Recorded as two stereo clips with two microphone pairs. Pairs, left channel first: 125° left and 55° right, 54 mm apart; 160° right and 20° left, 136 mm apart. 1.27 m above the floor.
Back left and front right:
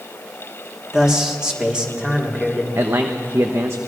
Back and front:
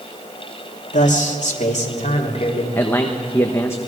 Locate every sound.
0.9 s a man speaking: 135° right, 2.5 m; by 2.6 s 125° right, 3.5 m
2.8 s a man speaking: 90° right, 1.1 m